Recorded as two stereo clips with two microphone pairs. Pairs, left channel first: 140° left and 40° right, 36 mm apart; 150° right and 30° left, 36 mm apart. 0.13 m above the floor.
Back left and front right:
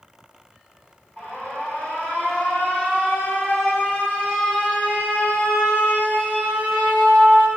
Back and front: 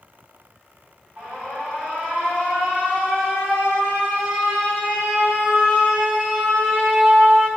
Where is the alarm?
95° left, 9.5 m.